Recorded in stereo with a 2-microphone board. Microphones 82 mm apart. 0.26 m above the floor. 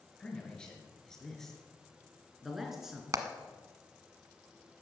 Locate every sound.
0.2 s a man speaking: 10° left (ahead or behind), 4.5 m; by 3.0 s 5° right (ahead or behind), 3.5 m
3.1 s hammering: 45° right (ahead or behind), 1.2 m